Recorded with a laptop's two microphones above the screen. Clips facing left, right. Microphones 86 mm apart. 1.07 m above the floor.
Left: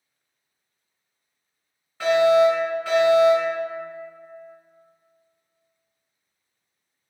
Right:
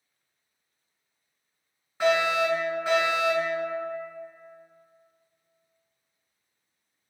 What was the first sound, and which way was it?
A fire alarm, 15° right (ahead or behind).